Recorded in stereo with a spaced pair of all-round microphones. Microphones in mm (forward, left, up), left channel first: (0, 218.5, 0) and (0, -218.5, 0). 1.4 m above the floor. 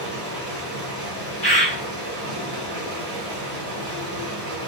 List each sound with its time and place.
0.0 s running water: 25° right (ahead or behind), 1.4 m
1.4 s a bird: 25° right (ahead or behind), 1.2 m